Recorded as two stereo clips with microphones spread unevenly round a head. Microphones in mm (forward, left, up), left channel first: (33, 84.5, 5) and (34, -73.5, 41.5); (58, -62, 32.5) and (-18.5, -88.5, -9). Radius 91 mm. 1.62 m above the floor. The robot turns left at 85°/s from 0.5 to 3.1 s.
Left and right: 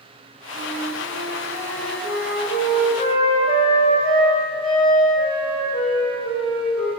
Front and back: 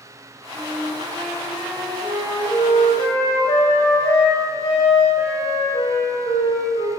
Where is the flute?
115° right, 5 m; by 6.9 s 30° left, 5 m.